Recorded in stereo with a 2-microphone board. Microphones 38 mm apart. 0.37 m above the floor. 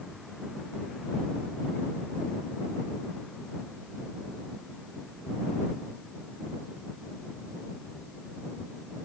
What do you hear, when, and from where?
Only background noise.